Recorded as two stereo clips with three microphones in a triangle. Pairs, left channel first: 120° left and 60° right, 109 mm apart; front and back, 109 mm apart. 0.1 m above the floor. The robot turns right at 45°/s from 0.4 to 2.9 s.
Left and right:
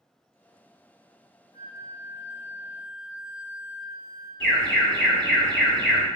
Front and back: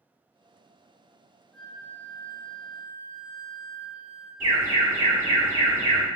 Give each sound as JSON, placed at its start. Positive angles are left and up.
{"t": 1.5, "sound": "a flute", "azimuth_deg": 80, "distance_m": 0.9}
{"t": 4.4, "sound": "an alarm", "azimuth_deg": -170, "distance_m": 1.8}